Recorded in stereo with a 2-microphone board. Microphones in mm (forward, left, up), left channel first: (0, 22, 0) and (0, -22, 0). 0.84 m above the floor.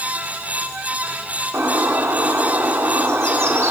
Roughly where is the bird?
Right.